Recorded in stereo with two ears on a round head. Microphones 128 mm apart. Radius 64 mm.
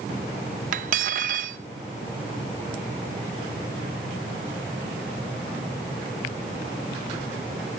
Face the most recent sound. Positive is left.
turn(degrees=-60)  # may be behind; listen again after turning